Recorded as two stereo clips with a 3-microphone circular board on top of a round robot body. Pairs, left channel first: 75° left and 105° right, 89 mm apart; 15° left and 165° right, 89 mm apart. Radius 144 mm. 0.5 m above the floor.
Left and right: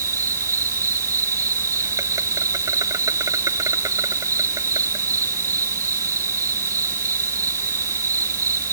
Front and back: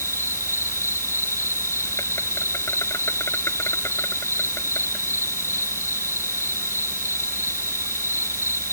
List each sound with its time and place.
0.0 s an insect: 50° right